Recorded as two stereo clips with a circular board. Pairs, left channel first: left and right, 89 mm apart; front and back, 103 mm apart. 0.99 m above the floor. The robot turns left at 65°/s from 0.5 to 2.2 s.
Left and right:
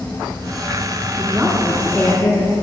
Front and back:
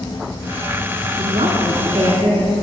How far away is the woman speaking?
About 1.9 m.